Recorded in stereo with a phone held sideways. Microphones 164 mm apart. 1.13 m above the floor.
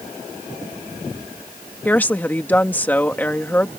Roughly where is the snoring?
I don't hear snoring.